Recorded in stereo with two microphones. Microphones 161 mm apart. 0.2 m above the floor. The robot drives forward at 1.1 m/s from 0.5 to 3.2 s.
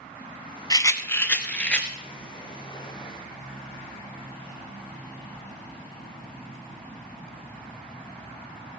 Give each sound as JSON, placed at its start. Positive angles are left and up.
{"t": 0.7, "sound": "a rattle", "side_deg": 25, "distance_m": 0.5}